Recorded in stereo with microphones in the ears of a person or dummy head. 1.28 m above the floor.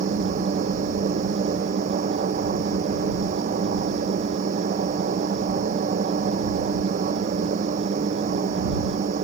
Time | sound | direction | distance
0.0 | a machine running | 45° right (ahead or behind) | ?